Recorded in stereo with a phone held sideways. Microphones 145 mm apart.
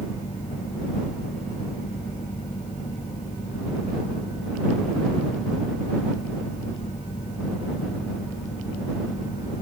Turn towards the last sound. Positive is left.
turn(degrees=60)  # may be behind; listen again after turning